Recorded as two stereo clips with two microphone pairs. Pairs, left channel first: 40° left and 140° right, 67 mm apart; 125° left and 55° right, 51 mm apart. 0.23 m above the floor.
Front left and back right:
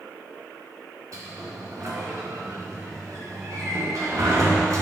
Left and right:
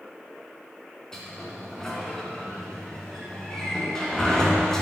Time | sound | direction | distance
1.1 | a sliding door | 160° right | 3 m